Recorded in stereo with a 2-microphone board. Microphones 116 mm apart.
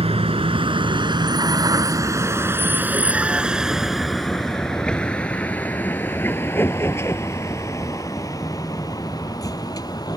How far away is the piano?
I don't hear a piano.